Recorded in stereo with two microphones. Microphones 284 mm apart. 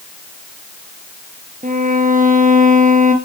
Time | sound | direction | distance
1.6 | a violin | 30° right (ahead or behind) | 2.5 m